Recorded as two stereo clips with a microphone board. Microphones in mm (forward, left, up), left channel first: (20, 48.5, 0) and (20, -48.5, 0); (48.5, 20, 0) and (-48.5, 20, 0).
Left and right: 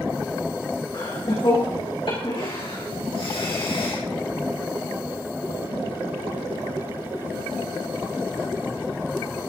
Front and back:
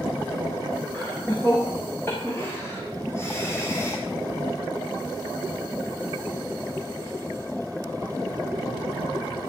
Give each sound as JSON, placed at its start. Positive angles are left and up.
{"t": 0.9, "sound": "laughter", "azimuth_deg": 65, "distance_m": 9.5}